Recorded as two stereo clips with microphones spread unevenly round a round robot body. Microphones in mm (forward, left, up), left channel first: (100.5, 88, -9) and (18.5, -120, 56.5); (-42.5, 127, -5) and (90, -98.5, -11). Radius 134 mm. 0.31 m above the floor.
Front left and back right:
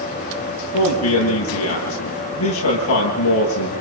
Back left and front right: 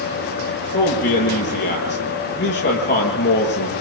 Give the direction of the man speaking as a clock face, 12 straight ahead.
10 o'clock.